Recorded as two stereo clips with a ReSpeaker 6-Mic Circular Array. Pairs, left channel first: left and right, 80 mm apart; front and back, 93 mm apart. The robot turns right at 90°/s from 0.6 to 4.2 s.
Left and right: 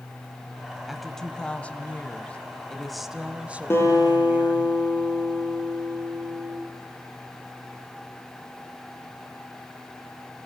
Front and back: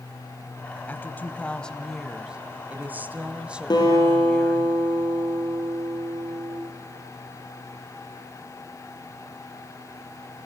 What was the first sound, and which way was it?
A woman speaking, 5° right.